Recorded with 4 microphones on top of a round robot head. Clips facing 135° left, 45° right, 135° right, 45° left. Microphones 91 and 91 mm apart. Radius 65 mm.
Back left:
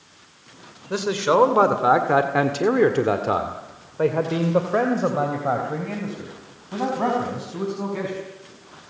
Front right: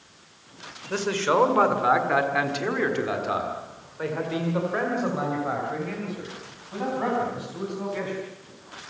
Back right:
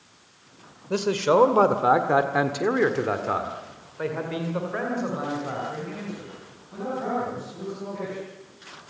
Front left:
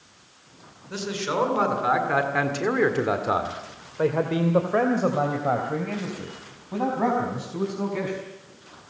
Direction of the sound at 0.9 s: 150° right.